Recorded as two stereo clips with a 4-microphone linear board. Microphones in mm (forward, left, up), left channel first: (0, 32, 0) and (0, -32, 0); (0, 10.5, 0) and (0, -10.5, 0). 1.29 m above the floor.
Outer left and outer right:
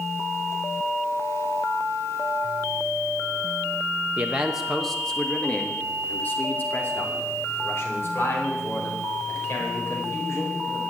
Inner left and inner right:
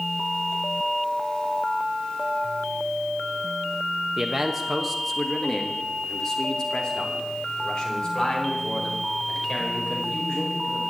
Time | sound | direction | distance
4.2 | a man speaking | 20° right (ahead or behind) | 0.9 m